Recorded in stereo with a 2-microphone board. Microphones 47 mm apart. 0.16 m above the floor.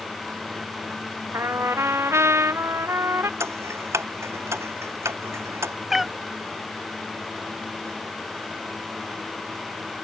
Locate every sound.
1.3 s a trumpet: 75° right (ahead or behind)
3.4 s ticking: 80° right
5.9 s a cat meowing: 5° right (ahead or behind)